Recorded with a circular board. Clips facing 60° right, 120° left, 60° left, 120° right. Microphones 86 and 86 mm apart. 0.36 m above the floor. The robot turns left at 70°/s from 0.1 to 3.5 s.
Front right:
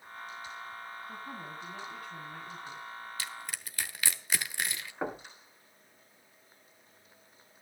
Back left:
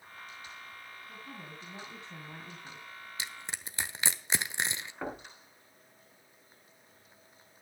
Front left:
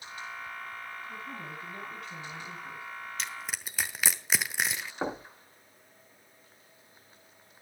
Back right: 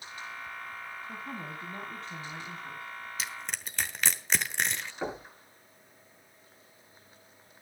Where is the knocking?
10° left, 2.5 m.